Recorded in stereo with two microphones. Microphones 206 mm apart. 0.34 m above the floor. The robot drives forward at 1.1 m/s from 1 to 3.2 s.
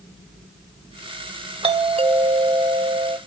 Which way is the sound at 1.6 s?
30° right (ahead or behind).